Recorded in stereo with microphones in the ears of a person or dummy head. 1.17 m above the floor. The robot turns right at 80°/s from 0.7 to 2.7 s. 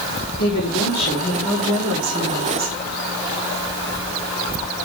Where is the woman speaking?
100° left, 3.5 m; by 2.8 s 100° right, 3.5 m.